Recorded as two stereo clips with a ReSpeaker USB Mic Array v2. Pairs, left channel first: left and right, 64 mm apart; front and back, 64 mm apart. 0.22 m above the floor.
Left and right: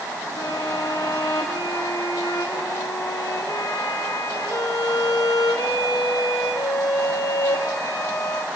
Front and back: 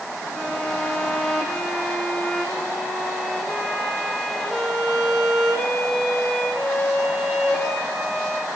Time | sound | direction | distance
0.4 | a violin | 80° left | 4 m